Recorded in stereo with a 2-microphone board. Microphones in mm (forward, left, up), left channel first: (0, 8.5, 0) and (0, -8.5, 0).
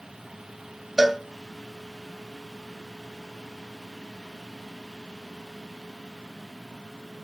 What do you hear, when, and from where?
1.0 s a cowbell: 10° right (ahead or behind), 1.3 m